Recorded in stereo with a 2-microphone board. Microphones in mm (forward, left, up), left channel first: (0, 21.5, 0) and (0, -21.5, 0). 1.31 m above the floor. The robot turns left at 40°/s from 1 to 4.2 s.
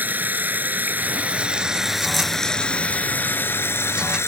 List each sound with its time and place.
0.0 s running water: 135° right; by 4.3 s 95° left